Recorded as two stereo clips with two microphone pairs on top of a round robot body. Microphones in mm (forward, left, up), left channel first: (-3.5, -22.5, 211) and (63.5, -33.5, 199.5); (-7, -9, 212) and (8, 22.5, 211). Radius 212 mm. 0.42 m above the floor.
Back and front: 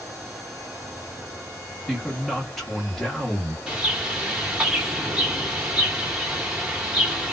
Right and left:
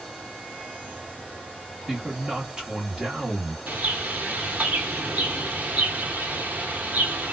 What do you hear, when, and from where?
1.9 s a man speaking: 70° left, 1.4 m
3.7 s a bird: 55° left, 1.4 m